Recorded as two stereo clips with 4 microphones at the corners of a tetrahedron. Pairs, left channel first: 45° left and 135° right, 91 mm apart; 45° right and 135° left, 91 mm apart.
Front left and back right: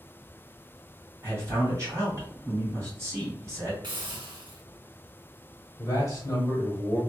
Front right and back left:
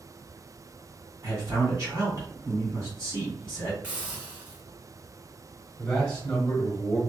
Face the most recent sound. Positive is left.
turn(degrees=25)